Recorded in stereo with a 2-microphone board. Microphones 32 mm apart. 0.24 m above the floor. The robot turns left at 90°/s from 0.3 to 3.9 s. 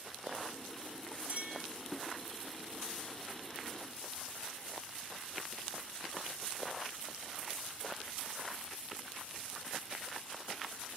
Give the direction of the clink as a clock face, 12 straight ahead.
2 o'clock.